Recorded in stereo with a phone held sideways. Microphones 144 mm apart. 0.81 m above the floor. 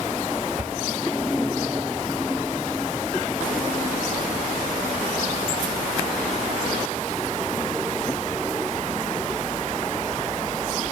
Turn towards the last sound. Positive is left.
turn(degrees=-10)  # may be behind; listen again after turning